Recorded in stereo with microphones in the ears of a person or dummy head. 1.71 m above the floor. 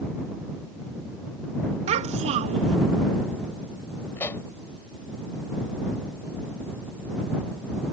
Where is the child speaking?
30° right (ahead or behind).